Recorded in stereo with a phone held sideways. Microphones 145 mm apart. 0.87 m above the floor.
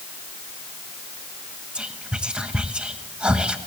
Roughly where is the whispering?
Centre.